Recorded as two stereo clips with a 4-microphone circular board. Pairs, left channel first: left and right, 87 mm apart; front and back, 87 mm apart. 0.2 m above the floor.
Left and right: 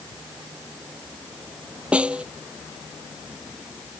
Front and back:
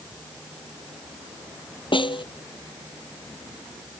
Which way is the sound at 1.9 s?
15° right.